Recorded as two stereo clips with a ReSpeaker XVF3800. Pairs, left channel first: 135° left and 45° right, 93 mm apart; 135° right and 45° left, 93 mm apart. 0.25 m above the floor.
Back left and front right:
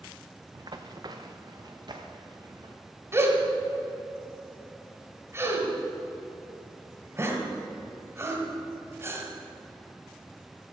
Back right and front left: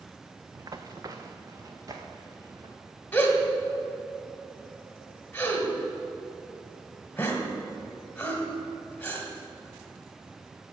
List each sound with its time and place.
0.6 s running footsteps: 5° right, 0.8 m
3.1 s a gasp: 80° right, 1.7 m